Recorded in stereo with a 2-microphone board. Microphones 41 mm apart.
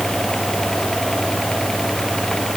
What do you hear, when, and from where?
Only background noise.